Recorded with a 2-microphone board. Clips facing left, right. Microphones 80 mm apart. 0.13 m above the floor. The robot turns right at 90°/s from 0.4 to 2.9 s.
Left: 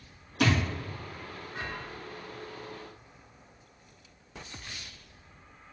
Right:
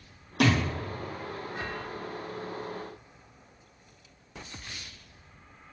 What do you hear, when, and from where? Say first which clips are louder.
0.4 s a thud: right 2 dB; 75° right (ahead or behind), 1.3 m; by 0.6 s 80° right, 1.3 m